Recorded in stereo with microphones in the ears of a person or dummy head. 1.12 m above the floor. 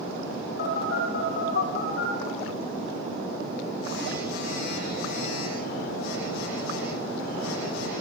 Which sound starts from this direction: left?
A phone buzzing, at 0.6 s.